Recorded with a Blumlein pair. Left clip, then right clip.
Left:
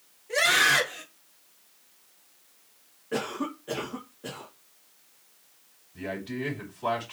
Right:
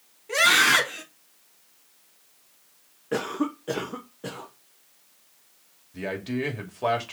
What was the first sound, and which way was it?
A scream, 55° right.